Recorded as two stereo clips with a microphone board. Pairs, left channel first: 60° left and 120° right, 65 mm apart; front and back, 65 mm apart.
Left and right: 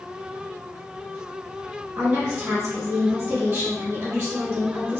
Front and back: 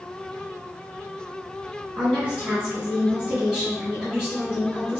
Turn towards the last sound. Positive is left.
turn(degrees=-105)